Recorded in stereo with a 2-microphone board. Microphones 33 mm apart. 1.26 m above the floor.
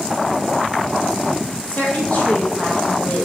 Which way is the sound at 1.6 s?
35° left (ahead or behind).